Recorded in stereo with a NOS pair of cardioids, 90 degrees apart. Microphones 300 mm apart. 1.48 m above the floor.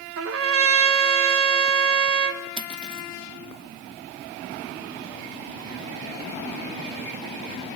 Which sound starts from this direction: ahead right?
A trumpet, at 0.2 s.